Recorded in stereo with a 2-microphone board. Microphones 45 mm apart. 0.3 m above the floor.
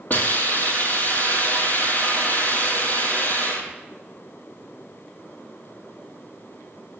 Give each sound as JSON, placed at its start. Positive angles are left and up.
{"t": 0.1, "sound": "a hiss", "side_deg": 40, "distance_m": 2.0}